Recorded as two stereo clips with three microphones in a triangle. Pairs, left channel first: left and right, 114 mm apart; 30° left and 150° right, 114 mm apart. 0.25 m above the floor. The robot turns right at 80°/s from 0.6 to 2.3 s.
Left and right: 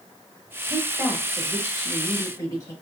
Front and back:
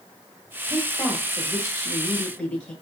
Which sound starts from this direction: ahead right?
A woman speaking, at 0.7 s.